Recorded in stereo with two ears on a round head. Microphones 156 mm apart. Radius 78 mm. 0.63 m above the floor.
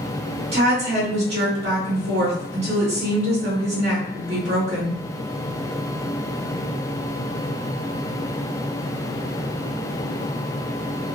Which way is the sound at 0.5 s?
35° right (ahead or behind).